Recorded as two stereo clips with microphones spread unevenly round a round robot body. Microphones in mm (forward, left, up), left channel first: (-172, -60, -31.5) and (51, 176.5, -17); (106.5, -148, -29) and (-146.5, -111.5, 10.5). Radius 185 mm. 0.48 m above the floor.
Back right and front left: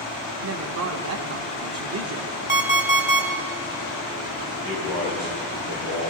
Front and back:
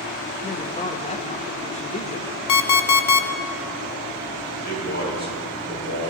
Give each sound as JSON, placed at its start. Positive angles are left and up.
{"t": 0.4, "sound": "a man speaking", "azimuth_deg": 30, "distance_m": 0.8}
{"t": 2.5, "sound": "an alarm clock", "azimuth_deg": -25, "distance_m": 0.9}
{"t": 4.6, "sound": "a man speaking", "azimuth_deg": -60, "distance_m": 6.5}